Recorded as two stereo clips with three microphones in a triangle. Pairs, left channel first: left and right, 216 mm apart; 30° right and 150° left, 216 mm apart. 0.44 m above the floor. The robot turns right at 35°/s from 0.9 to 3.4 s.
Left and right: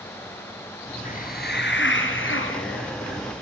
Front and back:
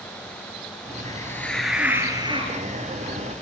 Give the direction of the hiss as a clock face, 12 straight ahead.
11 o'clock.